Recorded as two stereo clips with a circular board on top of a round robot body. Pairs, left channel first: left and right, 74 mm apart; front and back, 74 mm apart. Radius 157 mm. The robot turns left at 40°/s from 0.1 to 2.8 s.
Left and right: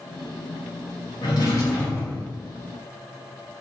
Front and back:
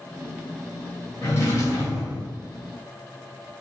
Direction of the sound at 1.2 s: 65° left.